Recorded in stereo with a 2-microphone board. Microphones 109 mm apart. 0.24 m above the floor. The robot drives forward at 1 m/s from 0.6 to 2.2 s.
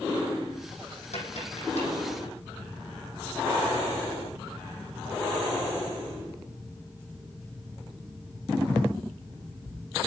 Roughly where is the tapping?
Left.